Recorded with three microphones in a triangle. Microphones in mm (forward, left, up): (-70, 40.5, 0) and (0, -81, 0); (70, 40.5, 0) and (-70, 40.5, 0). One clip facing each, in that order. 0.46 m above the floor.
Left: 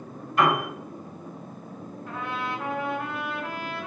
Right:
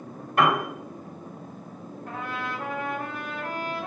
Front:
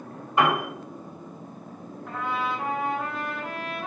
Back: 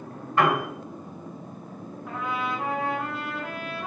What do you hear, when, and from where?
0.4 s a piano: 70° right, 1.9 m
2.1 s a trumpet: 95° right, 2 m